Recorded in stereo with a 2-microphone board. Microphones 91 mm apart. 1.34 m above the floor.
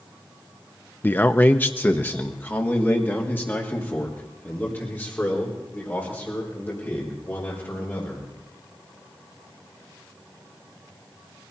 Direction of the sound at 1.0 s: 20° left (ahead or behind).